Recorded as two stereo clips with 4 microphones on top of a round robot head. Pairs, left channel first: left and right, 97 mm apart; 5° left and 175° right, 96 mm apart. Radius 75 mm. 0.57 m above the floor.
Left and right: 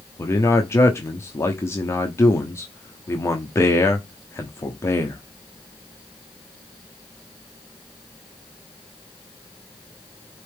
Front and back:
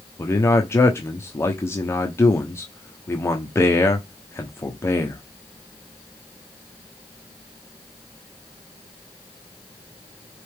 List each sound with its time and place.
0.2 s a man speaking: 50° left, 1.1 m